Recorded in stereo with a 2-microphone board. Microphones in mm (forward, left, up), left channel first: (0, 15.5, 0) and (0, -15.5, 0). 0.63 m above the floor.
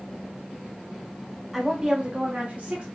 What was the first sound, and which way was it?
A woman speaking, centre (ahead or behind).